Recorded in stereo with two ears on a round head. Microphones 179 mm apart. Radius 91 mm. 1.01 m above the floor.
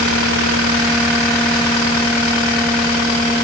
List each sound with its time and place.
Only background noise.